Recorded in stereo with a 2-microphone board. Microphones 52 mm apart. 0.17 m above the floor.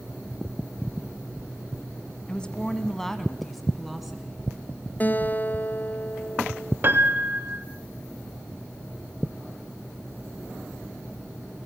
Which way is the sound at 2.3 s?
20° left (ahead or behind).